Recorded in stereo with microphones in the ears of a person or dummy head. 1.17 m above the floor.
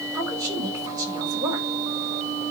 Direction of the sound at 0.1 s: 20° right (ahead or behind).